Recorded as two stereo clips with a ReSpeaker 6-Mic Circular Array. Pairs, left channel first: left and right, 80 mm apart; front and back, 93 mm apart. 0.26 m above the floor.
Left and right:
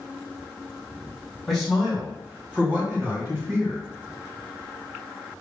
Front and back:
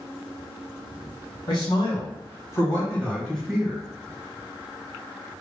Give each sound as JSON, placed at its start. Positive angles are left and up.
{"t": 1.5, "sound": "a man speaking", "azimuth_deg": 0, "distance_m": 1.5}